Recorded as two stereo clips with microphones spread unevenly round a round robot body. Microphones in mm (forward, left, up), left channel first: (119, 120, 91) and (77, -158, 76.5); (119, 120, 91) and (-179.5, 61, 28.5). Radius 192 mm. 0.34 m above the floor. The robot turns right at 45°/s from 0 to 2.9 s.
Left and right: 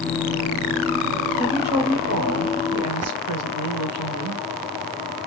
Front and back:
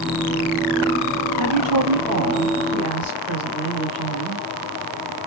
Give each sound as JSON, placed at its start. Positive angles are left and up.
{"t": 1.4, "sound": "a woman speaking", "azimuth_deg": -175, "distance_m": 1.9}